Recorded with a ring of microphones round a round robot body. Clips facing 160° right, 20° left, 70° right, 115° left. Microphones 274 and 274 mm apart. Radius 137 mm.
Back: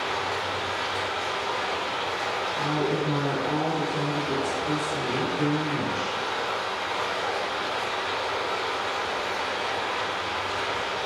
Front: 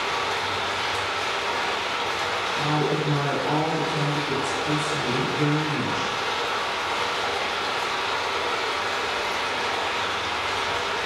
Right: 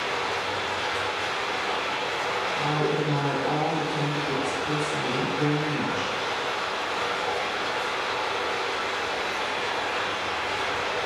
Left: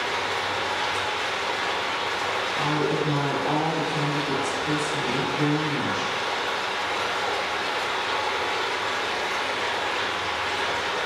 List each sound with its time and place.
0.0 s running water: 45° left, 1.4 m
2.5 s a woman speaking: 105° left, 1.5 m